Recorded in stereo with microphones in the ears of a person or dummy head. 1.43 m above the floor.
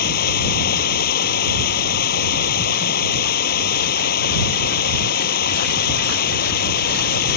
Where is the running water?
55° left (ahead or behind).